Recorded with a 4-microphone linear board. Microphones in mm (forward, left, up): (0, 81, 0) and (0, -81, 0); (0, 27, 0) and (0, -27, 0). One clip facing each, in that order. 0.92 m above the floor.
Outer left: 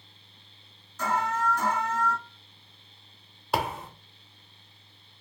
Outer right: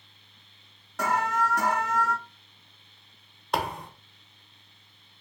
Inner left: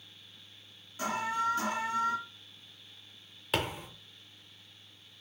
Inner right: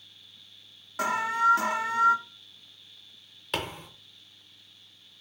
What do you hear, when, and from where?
1.0 s an alarm: 85° right, 0.6 m
3.5 s a thud: 5° left (ahead or behind), 0.7 m